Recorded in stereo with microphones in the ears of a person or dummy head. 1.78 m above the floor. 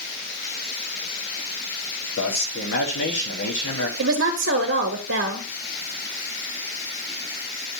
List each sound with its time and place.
2.2 s a man speaking: 70° left (ahead or behind), 1.6 m
4.0 s a woman speaking: 65° right (ahead or behind), 0.8 m